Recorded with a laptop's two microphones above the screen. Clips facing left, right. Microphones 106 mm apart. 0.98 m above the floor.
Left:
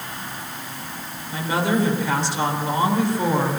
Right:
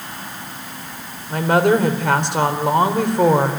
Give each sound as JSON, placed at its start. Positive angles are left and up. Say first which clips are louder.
{"t": 1.3, "sound": "a woman speaking", "louder": "right 7 dB", "side_deg": -60, "distance_m": 4.0}